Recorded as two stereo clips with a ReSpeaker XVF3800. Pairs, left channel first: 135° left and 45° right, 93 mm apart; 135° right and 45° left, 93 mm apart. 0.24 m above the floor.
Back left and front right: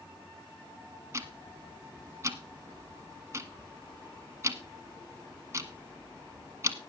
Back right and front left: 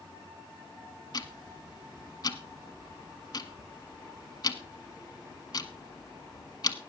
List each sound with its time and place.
1.1 s ticking: 100° right, 1.2 m